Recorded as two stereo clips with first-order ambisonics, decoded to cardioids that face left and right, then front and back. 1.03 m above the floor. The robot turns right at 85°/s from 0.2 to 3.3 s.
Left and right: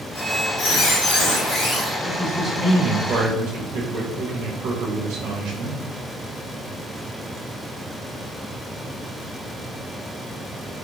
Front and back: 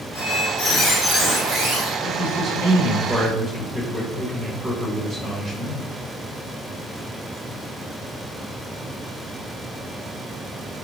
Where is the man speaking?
140° left, 1.1 m; by 5.8 s 110° right, 1.1 m.